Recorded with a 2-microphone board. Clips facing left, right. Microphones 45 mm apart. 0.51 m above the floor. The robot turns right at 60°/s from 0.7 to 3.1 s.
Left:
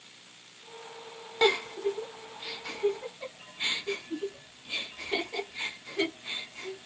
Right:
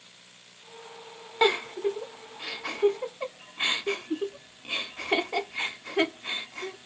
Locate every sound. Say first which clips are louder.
1.4 s a giggle: right 2 dB; 15° right (ahead or behind), 0.5 m; by 6.9 s 60° right (ahead or behind), 0.5 m